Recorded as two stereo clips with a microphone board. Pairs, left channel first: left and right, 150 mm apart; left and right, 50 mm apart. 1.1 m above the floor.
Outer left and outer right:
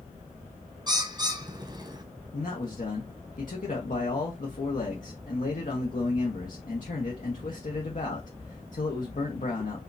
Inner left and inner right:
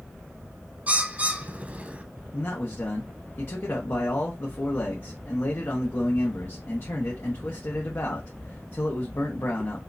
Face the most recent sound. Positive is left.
turn(degrees=55)  # may be behind; listen again after turning